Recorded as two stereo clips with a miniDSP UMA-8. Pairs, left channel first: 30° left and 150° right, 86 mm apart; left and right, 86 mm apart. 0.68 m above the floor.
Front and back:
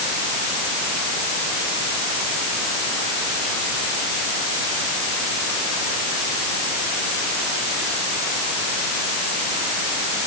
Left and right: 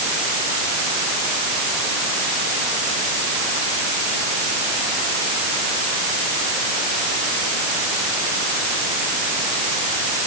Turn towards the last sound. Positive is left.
No sound to turn to.